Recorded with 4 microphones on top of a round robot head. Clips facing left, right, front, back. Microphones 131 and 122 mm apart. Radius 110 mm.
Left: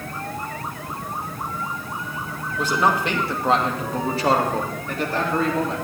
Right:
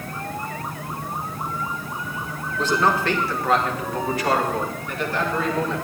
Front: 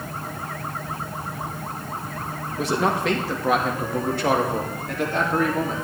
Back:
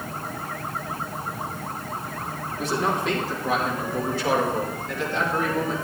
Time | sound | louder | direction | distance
2.6 | a man speaking | even, front 3 dB | 10° left | 2 m